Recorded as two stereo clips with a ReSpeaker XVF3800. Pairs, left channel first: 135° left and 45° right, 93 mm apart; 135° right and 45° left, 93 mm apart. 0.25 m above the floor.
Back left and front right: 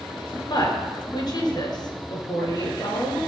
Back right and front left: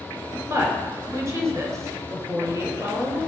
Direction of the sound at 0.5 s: 100° left.